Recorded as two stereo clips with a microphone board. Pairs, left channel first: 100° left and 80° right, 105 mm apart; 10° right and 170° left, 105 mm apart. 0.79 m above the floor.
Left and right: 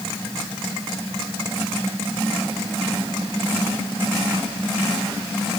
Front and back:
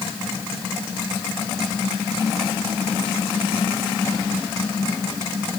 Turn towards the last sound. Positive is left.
No sound to turn to.